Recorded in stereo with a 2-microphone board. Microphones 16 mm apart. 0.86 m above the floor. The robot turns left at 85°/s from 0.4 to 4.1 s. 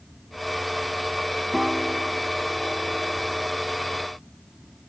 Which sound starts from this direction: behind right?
A piano, at 1.5 s.